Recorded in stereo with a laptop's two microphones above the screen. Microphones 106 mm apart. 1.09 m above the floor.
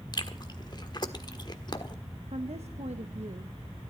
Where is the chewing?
40° left (ahead or behind), 1.4 m.